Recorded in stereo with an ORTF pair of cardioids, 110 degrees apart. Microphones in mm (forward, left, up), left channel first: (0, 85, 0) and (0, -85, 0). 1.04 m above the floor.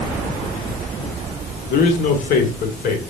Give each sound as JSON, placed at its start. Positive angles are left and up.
{"t": 1.7, "sound": "a man speaking", "azimuth_deg": 55, "distance_m": 2.0}